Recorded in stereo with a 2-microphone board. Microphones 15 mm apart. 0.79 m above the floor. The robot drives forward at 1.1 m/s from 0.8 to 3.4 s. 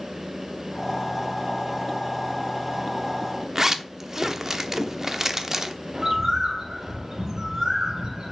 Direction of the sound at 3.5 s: 20° right (ahead or behind).